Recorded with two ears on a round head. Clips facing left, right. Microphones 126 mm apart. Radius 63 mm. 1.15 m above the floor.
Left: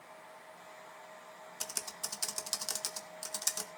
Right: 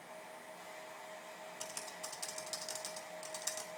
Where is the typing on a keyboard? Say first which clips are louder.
Left 2 dB; 65° left (ahead or behind), 1.2 m.